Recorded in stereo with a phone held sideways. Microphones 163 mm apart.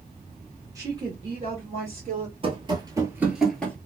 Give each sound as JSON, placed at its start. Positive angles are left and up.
{"t": 0.8, "sound": "a woman speaking", "side_deg": -20, "distance_m": 1.0}
{"t": 2.4, "sound": "running footsteps", "side_deg": -35, "distance_m": 1.0}